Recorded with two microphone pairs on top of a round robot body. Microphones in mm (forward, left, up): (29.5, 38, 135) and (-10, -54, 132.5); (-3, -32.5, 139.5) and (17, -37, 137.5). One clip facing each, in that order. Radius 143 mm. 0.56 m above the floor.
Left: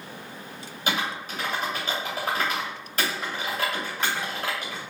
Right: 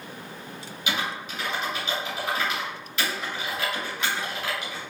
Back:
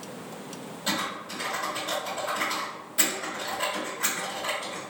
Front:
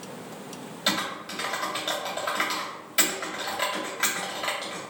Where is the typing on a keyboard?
15° left, 0.9 m.